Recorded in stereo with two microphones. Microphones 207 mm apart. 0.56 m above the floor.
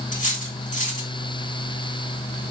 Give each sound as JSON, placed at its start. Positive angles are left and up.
{"t": 0.1, "sound": "cutlery clinking", "side_deg": 40, "distance_m": 3.0}